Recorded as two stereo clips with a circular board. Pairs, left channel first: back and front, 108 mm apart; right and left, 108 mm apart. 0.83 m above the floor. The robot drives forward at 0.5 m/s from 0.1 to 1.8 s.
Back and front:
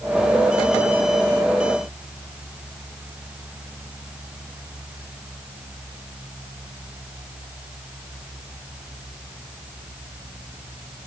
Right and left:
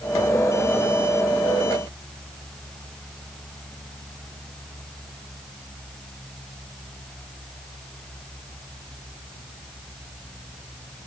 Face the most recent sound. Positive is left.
No sound to turn to.